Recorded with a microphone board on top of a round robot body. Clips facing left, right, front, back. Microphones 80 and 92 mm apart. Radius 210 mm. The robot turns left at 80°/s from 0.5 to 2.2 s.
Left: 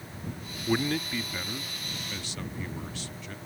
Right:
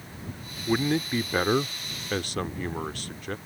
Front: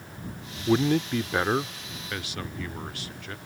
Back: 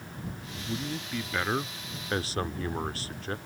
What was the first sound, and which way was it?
A man speaking, straight ahead.